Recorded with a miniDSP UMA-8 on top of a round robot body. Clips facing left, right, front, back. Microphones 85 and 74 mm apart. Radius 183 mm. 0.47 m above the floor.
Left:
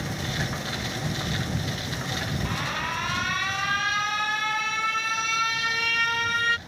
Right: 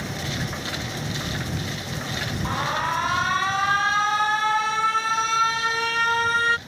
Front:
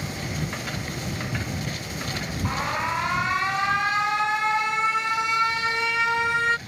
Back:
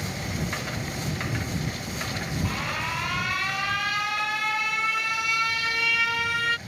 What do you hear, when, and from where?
2.5 s an alarm: 50° right